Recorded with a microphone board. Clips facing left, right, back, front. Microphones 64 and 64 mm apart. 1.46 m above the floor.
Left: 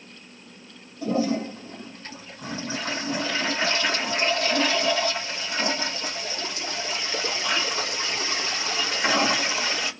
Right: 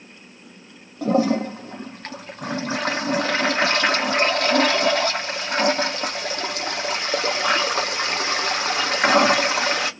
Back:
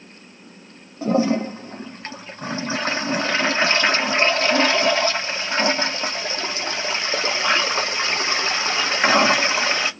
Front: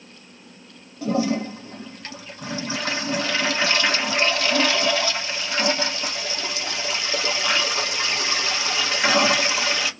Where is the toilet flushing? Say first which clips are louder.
Right 5 dB, back 3 dB; 125° right, 0.6 m.